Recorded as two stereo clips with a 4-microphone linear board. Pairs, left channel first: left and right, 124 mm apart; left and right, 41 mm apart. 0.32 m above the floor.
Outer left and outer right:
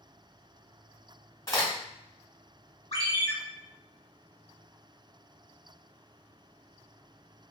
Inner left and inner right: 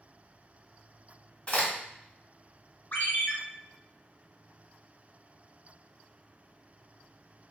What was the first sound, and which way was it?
A crack, 30° left (ahead or behind).